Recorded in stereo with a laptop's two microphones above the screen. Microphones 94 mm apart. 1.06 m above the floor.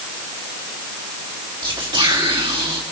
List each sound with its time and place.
1.6 s whispering: 55° right (ahead or behind), 1.6 m